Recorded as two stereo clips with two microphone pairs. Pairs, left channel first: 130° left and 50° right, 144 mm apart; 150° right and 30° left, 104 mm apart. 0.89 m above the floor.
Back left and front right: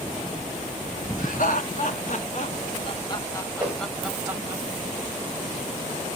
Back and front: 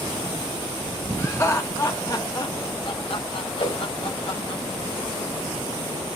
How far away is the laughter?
About 1.7 m.